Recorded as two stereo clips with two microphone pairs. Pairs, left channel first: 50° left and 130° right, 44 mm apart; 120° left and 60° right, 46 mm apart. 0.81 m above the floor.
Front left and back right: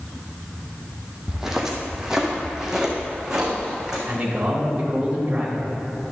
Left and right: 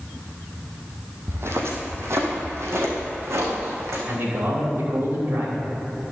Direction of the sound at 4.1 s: 60° right.